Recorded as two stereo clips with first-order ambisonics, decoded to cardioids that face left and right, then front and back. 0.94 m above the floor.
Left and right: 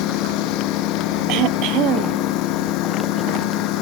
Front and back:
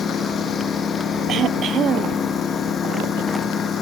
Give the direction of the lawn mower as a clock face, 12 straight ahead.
10 o'clock.